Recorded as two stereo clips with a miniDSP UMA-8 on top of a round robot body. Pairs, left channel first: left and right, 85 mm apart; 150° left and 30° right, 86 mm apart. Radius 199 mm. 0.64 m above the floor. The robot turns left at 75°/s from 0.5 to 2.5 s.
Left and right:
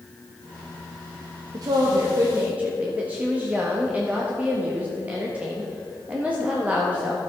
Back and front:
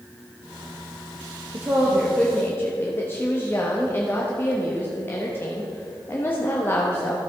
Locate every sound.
1.5 s a woman speaking: 85° right, 1.5 m; by 7.2 s 155° right, 1.5 m